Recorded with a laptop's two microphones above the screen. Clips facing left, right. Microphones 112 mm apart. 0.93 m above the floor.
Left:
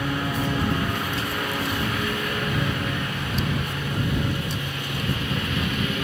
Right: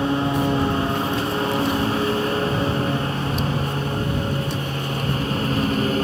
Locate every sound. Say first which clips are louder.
0.0 s a lawn mower: right 6 dB; 30° right (ahead or behind); by 6.0 s 35° right (ahead or behind)